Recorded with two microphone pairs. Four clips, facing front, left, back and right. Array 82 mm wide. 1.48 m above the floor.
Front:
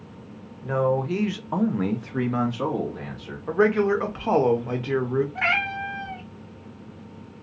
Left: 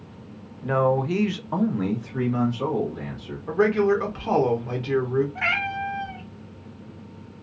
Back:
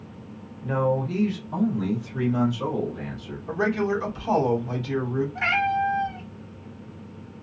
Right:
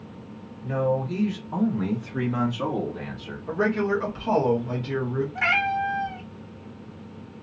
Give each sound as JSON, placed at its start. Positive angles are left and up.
{"t": 0.6, "sound": "a man speaking", "azimuth_deg": 80, "distance_m": 0.8}
{"t": 3.5, "sound": "a man speaking", "azimuth_deg": 10, "distance_m": 1.1}
{"t": 5.3, "sound": "a cat meowing", "azimuth_deg": -10, "distance_m": 0.7}